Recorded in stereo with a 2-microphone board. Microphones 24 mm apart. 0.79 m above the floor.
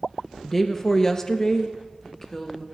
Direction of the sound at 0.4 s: 10° left (ahead or behind).